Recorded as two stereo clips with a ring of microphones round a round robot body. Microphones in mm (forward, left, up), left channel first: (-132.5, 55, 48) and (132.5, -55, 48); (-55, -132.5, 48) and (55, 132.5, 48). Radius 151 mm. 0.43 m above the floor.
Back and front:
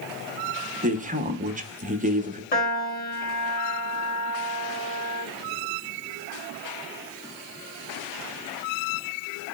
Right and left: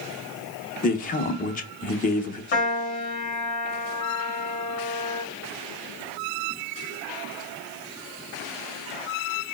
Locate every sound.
0.8 s a man speaking: 70° right, 0.8 m
2.5 s a piano: 155° right, 1.9 m